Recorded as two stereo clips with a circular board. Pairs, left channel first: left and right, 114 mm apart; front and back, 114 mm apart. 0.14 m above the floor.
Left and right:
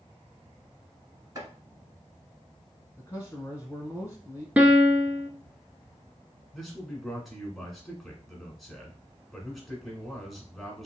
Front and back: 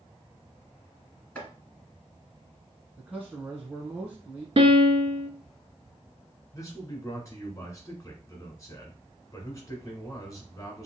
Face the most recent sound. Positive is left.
turn(degrees=0)